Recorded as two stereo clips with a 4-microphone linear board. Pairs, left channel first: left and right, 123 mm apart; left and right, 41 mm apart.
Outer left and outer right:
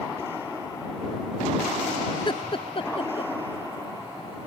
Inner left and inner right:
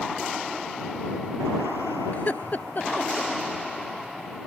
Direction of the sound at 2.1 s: 40° left (ahead or behind).